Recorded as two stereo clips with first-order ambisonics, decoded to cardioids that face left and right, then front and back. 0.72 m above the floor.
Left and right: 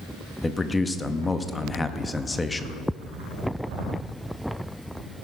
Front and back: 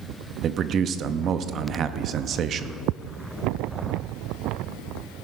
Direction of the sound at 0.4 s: 160° left.